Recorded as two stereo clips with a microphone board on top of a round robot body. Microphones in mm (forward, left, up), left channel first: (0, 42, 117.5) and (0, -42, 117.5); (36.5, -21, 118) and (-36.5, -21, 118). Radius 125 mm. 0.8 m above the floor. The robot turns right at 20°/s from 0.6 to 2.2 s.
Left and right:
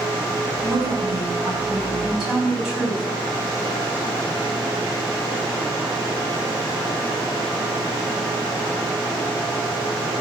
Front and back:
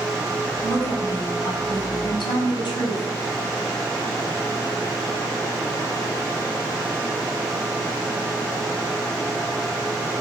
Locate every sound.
0.6 s a woman speaking: 40° right, 5.5 m; by 3.0 s 10° right, 5.5 m